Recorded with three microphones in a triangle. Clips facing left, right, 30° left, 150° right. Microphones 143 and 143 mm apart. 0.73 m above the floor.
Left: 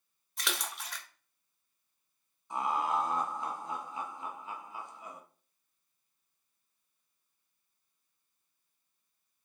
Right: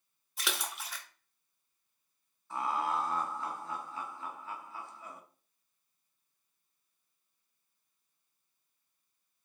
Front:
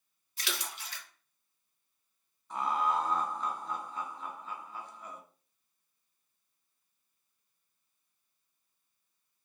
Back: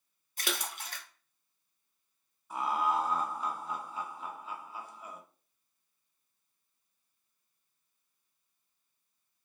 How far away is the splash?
About 0.6 m.